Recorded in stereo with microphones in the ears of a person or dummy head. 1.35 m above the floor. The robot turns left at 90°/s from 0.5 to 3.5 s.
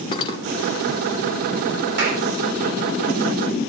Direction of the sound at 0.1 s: 25° left (ahead or behind).